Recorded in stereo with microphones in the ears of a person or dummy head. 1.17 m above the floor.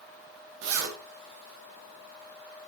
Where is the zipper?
70° right (ahead or behind), 2 m.